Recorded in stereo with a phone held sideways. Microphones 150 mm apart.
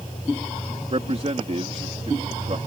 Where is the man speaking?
45° right (ahead or behind).